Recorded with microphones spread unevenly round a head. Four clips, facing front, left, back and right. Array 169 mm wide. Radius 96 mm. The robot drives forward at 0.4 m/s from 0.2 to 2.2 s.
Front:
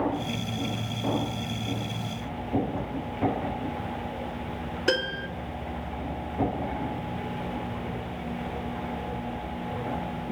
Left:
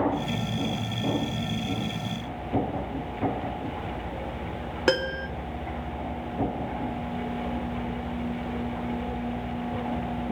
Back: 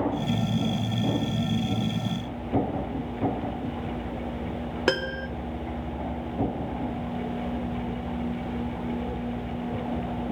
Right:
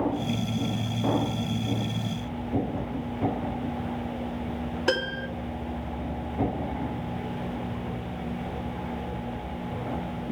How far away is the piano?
About 1.8 m.